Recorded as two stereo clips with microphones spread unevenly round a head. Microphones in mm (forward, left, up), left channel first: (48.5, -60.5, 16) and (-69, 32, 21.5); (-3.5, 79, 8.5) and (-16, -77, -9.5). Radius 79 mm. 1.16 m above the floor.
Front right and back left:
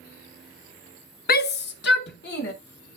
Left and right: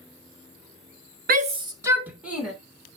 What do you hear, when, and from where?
1.3 s a shout: 60° right, 0.7 m; by 2.5 s 5° right, 2 m